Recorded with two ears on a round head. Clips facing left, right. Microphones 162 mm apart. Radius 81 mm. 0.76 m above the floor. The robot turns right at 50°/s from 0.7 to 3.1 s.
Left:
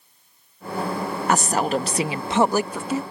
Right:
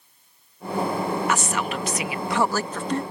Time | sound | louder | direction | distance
1.3 | a woman speaking | left 5 dB | 90° left | ?